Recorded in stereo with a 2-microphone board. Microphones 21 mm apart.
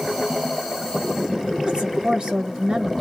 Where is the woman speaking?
50° right (ahead or behind), 1.0 m.